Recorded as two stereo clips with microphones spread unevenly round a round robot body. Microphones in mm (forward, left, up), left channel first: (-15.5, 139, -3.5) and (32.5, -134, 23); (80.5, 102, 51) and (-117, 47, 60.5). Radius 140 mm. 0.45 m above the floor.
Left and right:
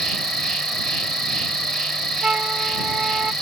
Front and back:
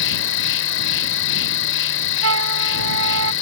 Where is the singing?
I don't hear singing.